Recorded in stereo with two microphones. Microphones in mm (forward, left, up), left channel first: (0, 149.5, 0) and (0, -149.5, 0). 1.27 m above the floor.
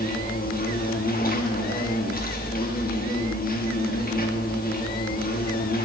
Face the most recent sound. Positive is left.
turn(degrees=30)  # may be behind; listen again after turning